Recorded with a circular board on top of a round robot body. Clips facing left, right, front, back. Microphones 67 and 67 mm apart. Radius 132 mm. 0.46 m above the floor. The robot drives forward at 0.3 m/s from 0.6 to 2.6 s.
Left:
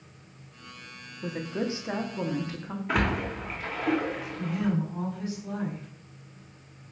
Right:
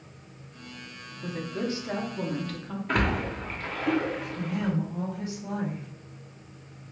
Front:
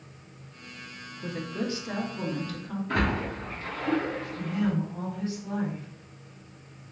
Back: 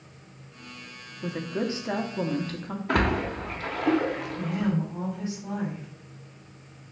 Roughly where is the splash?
Behind.